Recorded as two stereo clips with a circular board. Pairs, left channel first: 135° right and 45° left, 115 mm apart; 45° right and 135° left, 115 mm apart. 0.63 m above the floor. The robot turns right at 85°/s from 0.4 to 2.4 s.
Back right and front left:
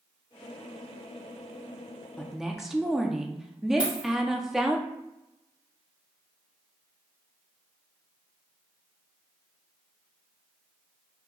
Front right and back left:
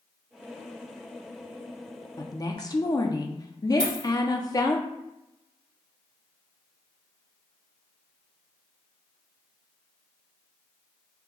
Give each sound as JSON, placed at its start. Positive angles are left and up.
{"t": 2.2, "sound": "a woman speaking", "azimuth_deg": -60, "distance_m": 0.6}
{"t": 3.8, "sound": "a dropped coin", "azimuth_deg": 125, "distance_m": 1.5}